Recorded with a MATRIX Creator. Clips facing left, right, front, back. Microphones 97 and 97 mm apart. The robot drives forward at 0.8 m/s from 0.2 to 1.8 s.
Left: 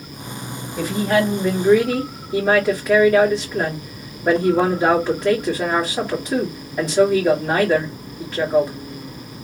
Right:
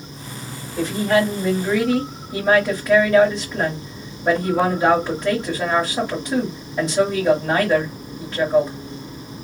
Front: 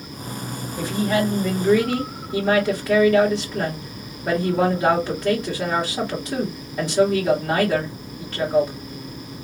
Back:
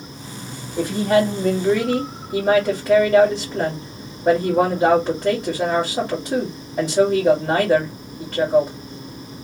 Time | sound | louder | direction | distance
0.8 | a woman speaking | even, back 4 dB | 175° left | 1.3 m